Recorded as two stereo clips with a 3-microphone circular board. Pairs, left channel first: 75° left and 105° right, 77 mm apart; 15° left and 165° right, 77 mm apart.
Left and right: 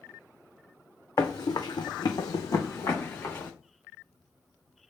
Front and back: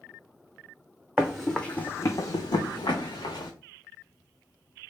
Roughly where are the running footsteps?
Behind left.